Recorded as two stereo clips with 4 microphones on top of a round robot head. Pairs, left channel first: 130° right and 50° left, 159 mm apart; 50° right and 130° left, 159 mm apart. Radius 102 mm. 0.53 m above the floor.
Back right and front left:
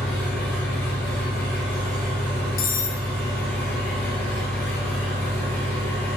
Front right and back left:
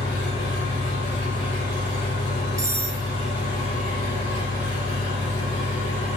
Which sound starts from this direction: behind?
Cutlery clinking, at 2.6 s.